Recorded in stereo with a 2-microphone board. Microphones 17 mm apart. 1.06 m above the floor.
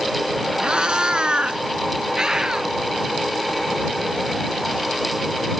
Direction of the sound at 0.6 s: 60° right (ahead or behind).